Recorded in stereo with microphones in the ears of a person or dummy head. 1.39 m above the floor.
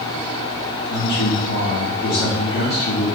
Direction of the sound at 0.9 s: 55° left (ahead or behind).